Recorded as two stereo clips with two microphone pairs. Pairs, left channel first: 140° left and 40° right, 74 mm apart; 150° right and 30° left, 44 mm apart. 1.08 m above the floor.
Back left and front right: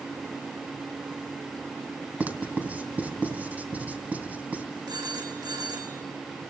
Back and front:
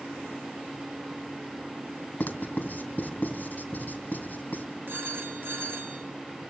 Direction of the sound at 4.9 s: 15° right.